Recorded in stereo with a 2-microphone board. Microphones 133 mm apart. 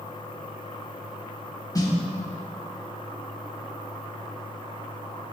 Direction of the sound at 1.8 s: 25° left (ahead or behind).